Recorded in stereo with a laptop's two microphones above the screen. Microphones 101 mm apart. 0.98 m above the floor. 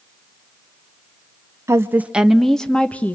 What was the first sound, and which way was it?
A woman speaking, 30° right (ahead or behind).